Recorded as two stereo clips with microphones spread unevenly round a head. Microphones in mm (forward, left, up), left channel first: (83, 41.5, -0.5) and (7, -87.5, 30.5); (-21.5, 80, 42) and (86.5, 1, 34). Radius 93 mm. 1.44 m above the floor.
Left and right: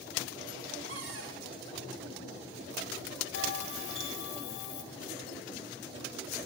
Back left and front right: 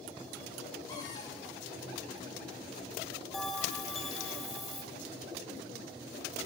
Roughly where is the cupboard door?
Behind right.